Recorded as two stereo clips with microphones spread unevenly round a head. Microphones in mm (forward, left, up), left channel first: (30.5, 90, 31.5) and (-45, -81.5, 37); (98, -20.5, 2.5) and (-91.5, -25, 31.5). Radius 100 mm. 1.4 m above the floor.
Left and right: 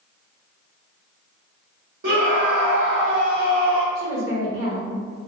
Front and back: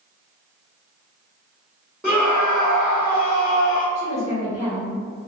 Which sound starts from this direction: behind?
A woman speaking, at 4.0 s.